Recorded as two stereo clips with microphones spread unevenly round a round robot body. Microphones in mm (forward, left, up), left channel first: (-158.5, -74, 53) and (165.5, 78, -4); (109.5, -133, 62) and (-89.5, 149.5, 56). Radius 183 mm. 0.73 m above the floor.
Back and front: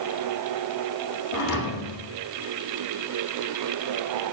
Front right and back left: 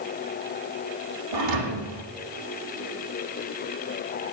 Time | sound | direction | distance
1.3 | a thud | 155° left | 7 m